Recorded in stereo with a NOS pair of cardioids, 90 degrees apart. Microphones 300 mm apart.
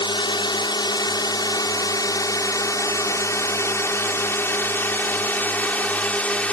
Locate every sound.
0.0 s a drone: 15° left; by 6.5 s 5° left